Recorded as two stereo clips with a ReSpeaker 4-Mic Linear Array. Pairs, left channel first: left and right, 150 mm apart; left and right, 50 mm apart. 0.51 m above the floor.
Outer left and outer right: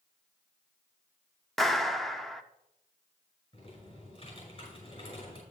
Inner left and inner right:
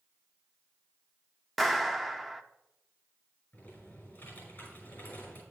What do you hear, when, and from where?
1.6 s a clap: centre (ahead or behind), 0.7 m
3.5 s typing on a keyboard: 45° left (ahead or behind), 5.5 m